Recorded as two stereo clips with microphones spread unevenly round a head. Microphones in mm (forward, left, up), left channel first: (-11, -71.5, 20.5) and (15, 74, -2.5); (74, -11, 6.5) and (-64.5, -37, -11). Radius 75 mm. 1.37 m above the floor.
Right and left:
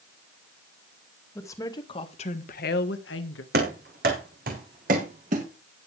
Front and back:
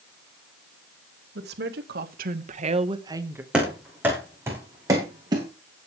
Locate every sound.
1.4 s a woman speaking: 175° right, 2.5 m; by 3.4 s 95° right, 1.8 m
3.5 s running footsteps: 105° left, 4.5 m; by 5.5 s 125° left, 4.5 m